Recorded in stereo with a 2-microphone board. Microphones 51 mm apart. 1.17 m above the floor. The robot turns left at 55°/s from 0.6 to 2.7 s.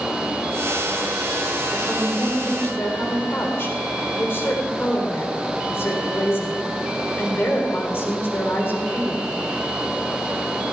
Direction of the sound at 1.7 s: 175° right.